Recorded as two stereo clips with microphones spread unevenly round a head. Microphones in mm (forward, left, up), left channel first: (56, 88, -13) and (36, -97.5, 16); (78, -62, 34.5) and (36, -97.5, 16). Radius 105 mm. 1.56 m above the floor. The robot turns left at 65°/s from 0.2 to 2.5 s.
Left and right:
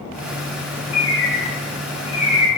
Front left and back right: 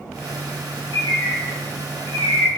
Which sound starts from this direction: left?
A bird, at 0.9 s.